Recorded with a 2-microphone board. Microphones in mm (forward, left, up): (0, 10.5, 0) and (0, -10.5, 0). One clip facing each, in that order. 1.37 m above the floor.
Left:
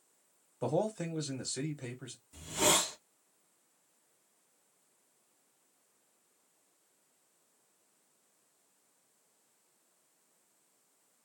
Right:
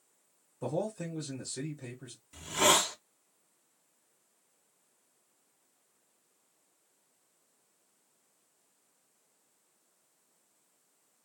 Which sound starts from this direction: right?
A hiss, at 2.3 s.